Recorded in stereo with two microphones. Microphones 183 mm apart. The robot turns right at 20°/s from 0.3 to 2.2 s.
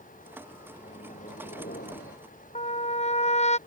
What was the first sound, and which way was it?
A microwave, 35° left (ahead or behind).